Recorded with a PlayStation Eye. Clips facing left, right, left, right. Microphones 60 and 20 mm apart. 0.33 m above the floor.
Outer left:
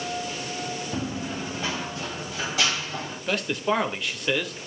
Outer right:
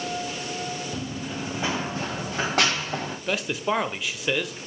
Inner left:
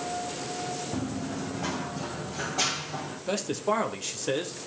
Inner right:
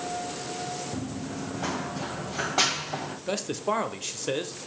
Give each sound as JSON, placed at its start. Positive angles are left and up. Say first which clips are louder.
{"t": 0.9, "sound": "running footsteps", "louder": "outer left 2 dB, inner left 2 dB", "side_deg": 25, "distance_m": 1.3}
{"t": 3.3, "sound": "a man speaking", "louder": "outer left 1 dB, inner left 1 dB", "side_deg": -5, "distance_m": 0.9}